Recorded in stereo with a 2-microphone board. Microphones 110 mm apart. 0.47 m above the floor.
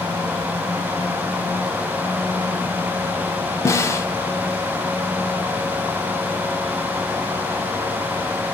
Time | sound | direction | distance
3.6 | a snare drum | 25° left (ahead or behind) | 0.6 m